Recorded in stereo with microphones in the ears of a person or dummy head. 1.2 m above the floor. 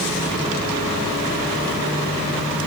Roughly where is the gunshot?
I don't hear a gunshot.